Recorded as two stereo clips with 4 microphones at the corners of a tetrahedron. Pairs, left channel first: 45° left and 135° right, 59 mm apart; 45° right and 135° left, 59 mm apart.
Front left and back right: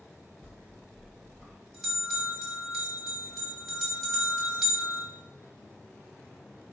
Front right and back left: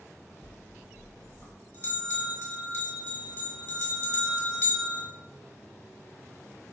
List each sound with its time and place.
0.4 s a bell: 45° right, 1.2 m